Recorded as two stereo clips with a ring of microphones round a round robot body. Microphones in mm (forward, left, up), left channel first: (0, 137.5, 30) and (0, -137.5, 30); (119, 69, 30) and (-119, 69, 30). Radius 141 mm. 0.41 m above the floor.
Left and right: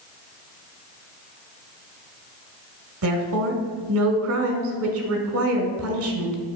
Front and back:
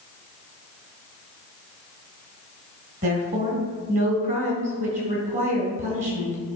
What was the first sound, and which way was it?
A woman speaking, 120° right.